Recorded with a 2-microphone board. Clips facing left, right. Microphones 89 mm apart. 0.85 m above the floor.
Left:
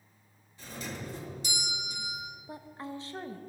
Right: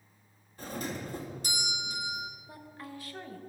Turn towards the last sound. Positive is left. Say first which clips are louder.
# left 4 dB
turn(degrees=25)  # may be behind; listen again after turning